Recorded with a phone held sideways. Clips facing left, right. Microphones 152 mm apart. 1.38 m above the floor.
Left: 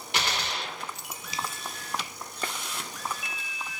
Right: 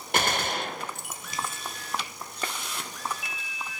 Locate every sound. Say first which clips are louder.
0.1 s a gunshot: right 5 dB; 50° right (ahead or behind), 0.6 m